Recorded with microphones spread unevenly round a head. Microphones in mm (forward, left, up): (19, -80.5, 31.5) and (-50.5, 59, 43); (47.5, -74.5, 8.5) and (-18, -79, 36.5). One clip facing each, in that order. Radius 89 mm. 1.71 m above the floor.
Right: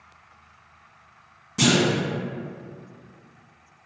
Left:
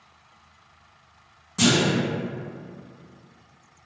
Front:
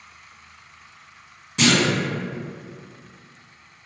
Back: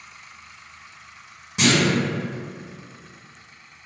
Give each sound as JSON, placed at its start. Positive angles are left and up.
{"t": 1.6, "sound": "a clunk", "azimuth_deg": -135, "distance_m": 1.4}